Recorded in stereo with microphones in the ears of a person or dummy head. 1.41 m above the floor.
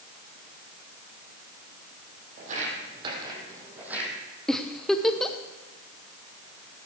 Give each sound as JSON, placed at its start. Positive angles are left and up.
{"t": 2.4, "sound": "footsteps", "side_deg": -50, "distance_m": 3.5}
{"t": 4.5, "sound": "a giggle", "side_deg": 5, "distance_m": 0.7}